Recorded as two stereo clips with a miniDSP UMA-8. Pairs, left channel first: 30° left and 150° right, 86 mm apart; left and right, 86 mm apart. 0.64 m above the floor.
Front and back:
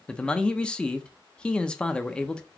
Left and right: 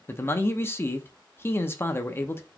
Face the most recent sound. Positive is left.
turn(degrees=95)